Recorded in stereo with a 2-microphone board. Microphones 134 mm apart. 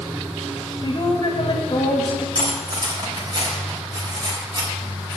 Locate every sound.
0.8 s a woman speaking: 40° left (ahead or behind), 1.7 m
2.4 s cutlery clinking: 35° right (ahead or behind), 3 m